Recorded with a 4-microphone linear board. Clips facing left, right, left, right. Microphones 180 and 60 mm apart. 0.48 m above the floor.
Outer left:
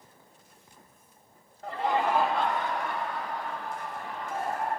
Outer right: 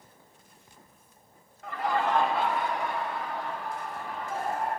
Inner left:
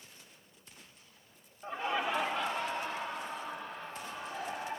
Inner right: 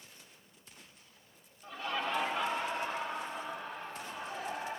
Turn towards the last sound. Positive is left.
turn(degrees=-30)  # may be behind; listen again after turning